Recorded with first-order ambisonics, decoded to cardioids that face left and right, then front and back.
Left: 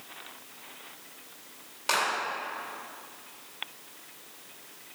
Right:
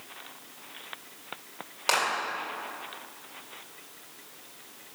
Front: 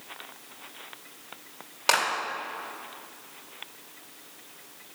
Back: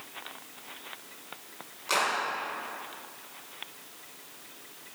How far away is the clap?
About 3 m.